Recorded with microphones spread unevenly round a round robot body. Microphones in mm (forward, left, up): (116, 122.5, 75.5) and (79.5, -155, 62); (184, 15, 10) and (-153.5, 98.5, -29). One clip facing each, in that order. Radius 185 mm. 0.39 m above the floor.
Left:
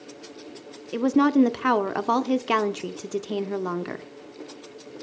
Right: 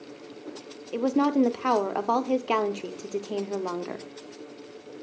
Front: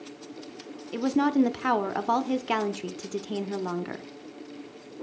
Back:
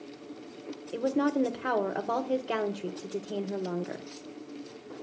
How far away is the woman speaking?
About 0.8 m.